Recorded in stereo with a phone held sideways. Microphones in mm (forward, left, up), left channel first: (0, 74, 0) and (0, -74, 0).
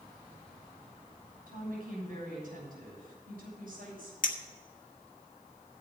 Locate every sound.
1.5 s a woman speaking: 75° right (ahead or behind), 7 m
4.2 s a clink: 65° left (ahead or behind), 1.4 m